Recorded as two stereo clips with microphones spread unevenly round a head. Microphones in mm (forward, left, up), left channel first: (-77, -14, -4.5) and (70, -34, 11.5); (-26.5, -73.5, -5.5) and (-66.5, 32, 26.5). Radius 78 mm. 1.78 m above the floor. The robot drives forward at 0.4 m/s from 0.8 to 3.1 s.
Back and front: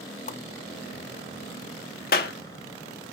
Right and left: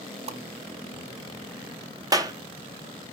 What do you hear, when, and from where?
0.3 s a whoosh: 125° left, 0.6 m
2.1 s a clap: 150° left, 1.0 m